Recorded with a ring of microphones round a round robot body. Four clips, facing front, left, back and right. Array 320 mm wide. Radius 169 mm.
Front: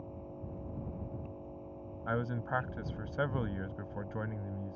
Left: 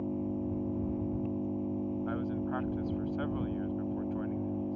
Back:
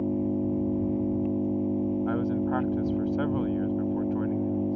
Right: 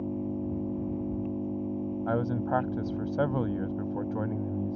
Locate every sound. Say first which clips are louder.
0.0 s an engine running: right 2 dB, back 19 dB; straight behind
2.1 s a man speaking: right 5 dB, back 9 dB; 70° right